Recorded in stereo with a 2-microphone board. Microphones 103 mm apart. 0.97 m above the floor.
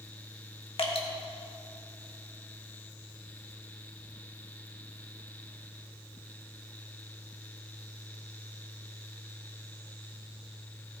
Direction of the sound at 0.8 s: 60° left (ahead or behind).